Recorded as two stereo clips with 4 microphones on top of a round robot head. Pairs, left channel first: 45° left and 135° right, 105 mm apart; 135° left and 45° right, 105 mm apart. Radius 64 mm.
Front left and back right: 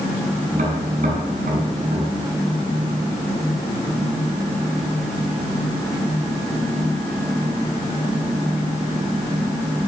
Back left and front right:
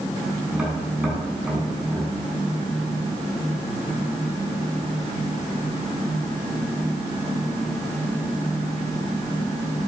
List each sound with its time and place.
0.5 s tapping: 125° right, 6.5 m